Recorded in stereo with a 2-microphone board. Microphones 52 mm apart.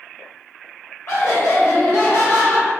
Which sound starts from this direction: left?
Laughter, at 1.1 s.